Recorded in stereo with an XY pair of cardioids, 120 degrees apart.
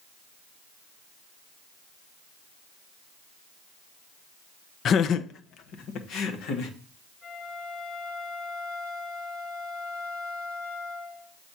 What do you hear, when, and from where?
4.8 s laughter: 50° left, 0.5 m; by 6.7 s 75° left, 1.9 m
7.2 s a flute: 65° left, 3 m